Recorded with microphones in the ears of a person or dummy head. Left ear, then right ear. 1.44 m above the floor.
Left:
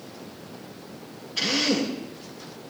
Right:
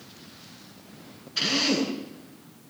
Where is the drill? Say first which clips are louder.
Even; 15° right (ahead or behind), 9.5 m.